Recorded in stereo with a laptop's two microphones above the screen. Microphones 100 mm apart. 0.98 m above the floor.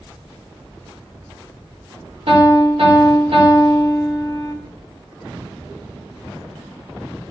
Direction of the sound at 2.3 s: 65° right (ahead or behind).